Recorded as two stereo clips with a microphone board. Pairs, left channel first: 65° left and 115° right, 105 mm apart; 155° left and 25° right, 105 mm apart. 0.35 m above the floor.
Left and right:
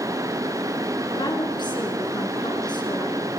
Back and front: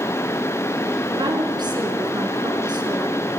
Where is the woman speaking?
25° left, 5 m.